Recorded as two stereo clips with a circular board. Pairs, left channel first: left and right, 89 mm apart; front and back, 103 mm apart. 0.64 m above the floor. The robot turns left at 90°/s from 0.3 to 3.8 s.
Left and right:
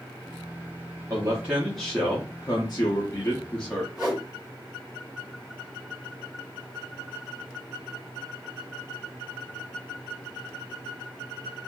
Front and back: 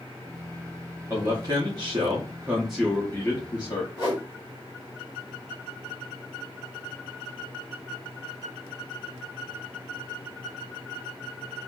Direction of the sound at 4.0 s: Straight ahead.